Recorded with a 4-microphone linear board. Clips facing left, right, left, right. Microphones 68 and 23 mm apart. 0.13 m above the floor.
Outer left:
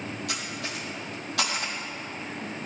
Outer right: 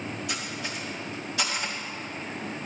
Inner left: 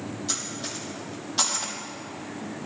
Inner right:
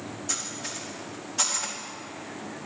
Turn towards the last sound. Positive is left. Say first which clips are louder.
# even, even
turn(degrees=70)  # may be behind; listen again after turning